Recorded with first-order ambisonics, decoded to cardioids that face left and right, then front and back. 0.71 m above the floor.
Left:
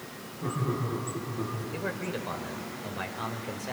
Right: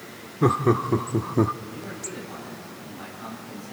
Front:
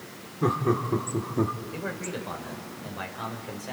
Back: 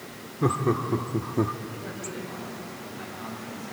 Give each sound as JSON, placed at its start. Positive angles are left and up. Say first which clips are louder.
{"t": 0.4, "sound": "laughter", "louder": "right 12 dB, even", "azimuth_deg": -90, "distance_m": 1.7}
{"t": 1.7, "sound": "a man speaking", "louder": "left 3 dB, front 3 dB", "azimuth_deg": 55, "distance_m": 3.5}